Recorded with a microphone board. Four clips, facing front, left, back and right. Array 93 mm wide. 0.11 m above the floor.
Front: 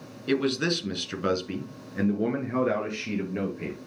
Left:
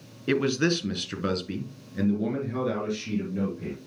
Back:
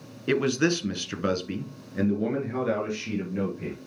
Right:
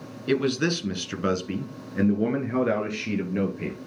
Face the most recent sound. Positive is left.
turn(degrees=-70)